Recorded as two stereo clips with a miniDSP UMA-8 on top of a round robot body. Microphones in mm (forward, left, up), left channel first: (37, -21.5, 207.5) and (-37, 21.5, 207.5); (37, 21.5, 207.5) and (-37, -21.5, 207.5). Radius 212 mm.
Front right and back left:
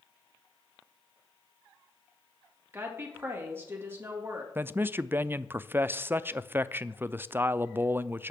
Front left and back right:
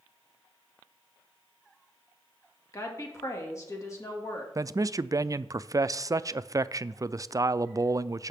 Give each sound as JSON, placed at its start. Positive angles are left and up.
{"t": 2.7, "sound": "a woman speaking", "azimuth_deg": 85, "distance_m": 2.0}
{"t": 4.5, "sound": "a man speaking", "azimuth_deg": -160, "distance_m": 0.5}